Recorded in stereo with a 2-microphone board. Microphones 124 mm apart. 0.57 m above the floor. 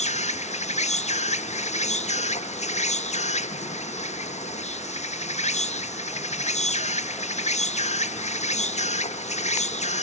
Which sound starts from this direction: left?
An insect, at 0.0 s.